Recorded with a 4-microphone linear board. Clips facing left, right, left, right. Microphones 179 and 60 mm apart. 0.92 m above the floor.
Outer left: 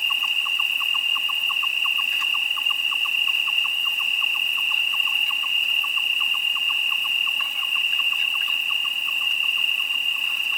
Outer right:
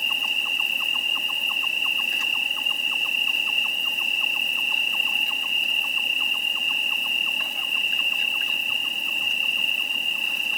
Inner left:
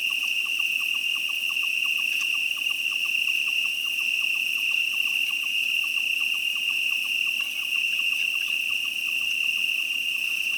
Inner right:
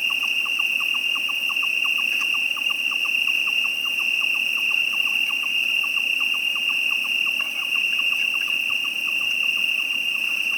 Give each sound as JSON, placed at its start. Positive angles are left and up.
{"t": 0.0, "sound": "an insect", "side_deg": -40}